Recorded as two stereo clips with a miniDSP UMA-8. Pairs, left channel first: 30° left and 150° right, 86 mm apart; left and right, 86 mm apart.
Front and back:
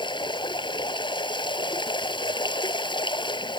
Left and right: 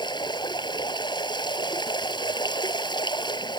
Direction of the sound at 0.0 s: 60° left.